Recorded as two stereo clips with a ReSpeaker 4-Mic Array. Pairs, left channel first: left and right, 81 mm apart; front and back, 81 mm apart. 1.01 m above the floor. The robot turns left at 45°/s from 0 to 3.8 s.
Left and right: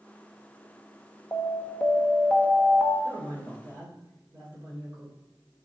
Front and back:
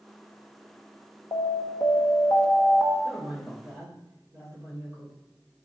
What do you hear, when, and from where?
1.3 s an alarm: 35° left, 1.0 m; by 2.9 s 35° right, 1.0 m
3.0 s a man speaking: 95° right, 3.5 m; by 5.2 s 130° right, 3.5 m